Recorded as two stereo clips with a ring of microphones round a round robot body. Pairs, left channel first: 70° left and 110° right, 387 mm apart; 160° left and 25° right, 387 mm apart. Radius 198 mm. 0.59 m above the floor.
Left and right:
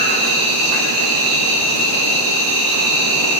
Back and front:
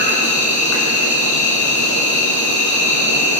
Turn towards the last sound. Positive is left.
turn(degrees=-150)